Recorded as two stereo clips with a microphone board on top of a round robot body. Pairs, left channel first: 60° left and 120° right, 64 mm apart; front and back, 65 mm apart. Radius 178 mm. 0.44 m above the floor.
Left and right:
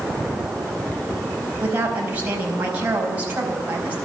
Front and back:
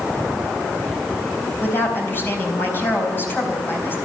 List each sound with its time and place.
1.6 s a woman speaking: 55° right, 4.5 m